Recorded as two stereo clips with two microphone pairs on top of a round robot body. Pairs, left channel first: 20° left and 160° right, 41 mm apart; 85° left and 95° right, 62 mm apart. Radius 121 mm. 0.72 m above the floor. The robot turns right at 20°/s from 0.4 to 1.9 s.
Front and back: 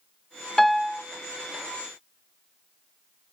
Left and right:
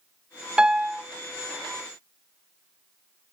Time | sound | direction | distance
0.6 | a piano | 45° right | 0.9 m